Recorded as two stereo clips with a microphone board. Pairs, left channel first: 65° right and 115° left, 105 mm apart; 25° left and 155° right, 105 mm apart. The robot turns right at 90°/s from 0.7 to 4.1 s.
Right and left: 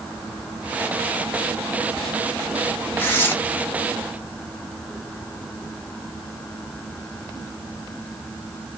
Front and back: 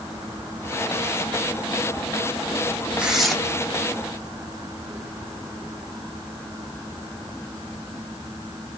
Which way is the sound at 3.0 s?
95° right.